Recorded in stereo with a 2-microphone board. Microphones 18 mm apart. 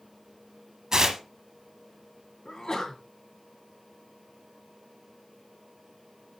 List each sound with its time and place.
0.9 s tearing paper: 35° right (ahead or behind), 0.9 m
2.5 s a sneeze: 40° left (ahead or behind), 1.9 m